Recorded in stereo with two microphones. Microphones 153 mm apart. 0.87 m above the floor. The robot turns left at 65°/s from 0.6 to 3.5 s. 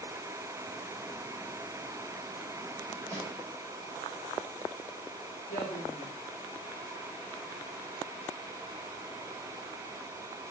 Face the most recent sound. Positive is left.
turn(degrees=70)  # may be behind; listen again after turning